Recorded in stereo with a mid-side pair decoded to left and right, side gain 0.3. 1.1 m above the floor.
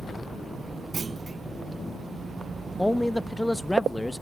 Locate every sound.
0.9 s a clunk: 45° right, 0.5 m
2.8 s a man speaking: 15° left, 1.0 m